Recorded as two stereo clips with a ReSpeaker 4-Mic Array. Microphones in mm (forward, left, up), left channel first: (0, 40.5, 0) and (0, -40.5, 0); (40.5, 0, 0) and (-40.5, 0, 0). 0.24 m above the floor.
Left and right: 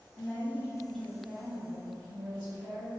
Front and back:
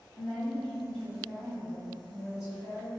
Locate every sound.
0.1 s a woman speaking: 70° left, 1.1 m; by 2.9 s 95° right, 1.5 m